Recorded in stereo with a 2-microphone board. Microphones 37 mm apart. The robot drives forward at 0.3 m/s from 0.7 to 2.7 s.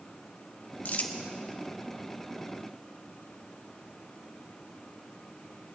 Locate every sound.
0.8 s crumpling: 45° left (ahead or behind), 1.1 m